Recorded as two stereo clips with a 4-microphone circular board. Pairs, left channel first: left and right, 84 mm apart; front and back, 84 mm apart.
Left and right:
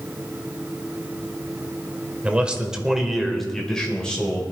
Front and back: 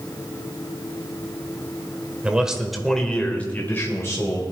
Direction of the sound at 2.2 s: 130° right.